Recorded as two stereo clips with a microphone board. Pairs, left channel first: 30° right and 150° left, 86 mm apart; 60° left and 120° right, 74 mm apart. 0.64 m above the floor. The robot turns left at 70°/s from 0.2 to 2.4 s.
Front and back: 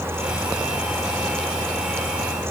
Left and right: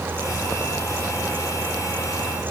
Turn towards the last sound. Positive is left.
No sound to turn to.